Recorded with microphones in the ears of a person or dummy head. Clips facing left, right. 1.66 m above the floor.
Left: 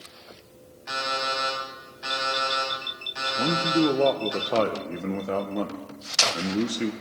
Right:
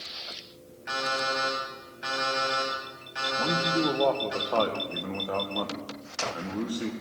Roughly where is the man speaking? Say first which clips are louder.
Left 5 dB; left.